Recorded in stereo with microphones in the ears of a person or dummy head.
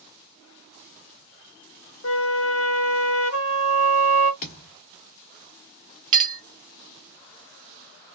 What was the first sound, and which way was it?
A flute, 65° left (ahead or behind).